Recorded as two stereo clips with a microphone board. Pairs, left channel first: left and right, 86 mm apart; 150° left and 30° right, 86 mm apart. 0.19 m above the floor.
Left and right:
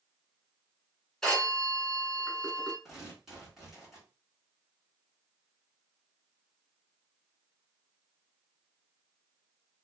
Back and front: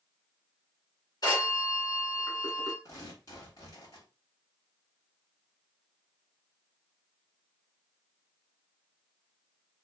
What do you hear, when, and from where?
1.2 s a phone ringing: 175° left, 1.5 m
2.9 s tearing paper: 175° right, 2.5 m